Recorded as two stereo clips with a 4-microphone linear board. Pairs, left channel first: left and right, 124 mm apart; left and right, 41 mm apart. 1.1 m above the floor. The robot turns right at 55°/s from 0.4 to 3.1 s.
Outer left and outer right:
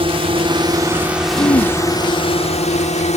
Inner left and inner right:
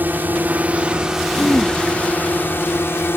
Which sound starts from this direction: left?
Throat clearing, at 1.4 s.